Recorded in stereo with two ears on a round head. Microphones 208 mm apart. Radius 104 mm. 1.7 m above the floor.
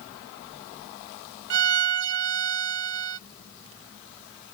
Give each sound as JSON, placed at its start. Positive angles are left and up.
{"t": 1.5, "sound": "a violin", "side_deg": -55}